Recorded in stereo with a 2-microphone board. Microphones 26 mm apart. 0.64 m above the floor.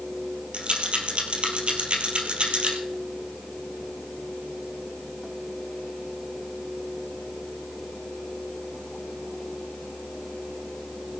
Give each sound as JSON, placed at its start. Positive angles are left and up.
{"t": 0.5, "sound": "a rattle", "side_deg": -45, "distance_m": 2.5}